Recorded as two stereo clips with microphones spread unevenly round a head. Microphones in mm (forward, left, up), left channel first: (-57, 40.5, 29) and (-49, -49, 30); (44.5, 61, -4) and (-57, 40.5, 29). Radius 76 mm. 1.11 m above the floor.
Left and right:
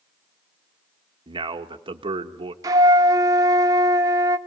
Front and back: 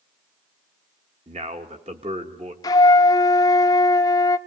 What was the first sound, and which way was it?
A man speaking, 110° right.